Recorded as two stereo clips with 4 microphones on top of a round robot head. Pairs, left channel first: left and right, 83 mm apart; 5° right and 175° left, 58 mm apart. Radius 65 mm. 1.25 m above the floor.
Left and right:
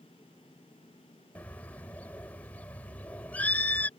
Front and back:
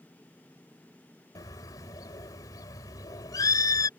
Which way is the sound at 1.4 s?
15° left.